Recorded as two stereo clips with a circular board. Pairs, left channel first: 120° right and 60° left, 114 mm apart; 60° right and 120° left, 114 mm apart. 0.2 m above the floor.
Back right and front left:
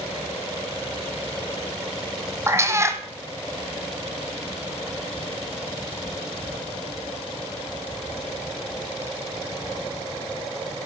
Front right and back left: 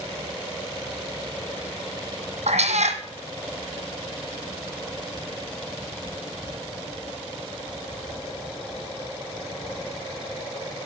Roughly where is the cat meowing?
Behind left.